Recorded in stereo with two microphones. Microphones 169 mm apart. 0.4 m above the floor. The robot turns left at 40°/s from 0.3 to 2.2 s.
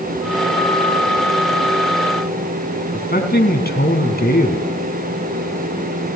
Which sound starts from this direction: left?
A man speaking, at 2.9 s.